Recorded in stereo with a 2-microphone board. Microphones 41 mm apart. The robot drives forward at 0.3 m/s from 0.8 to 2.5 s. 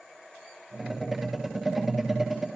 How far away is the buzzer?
I don't hear a buzzer.